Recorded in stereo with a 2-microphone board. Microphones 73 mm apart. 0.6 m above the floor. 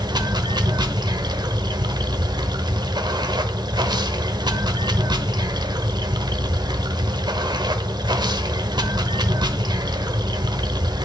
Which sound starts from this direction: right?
Running water, at 0.0 s.